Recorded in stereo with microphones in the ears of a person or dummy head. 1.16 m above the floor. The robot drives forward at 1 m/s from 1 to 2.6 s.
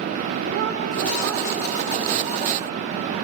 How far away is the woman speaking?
About 3.5 m.